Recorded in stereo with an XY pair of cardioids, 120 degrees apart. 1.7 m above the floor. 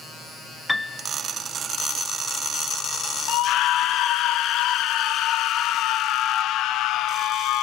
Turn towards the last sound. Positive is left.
turn(degrees=70)